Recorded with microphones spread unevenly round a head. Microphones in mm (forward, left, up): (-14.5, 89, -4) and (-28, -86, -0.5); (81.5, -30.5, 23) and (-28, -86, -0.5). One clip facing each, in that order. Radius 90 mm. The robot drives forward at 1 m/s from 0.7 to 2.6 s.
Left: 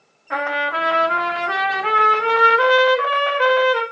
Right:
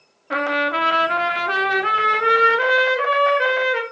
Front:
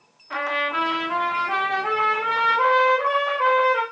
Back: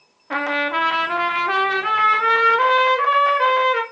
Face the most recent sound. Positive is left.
turn(degrees=-160)